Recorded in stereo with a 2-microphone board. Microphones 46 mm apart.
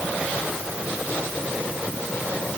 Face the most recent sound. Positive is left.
No sound to turn to.